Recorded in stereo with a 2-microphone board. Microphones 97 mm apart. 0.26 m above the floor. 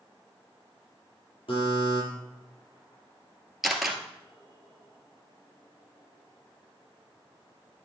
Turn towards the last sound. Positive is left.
turn(degrees=-5)  # may be behind; listen again after turning